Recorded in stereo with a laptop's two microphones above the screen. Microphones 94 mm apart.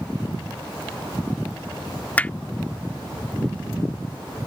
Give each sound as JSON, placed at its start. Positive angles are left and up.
{"t": 2.2, "sound": "hammering", "side_deg": 15}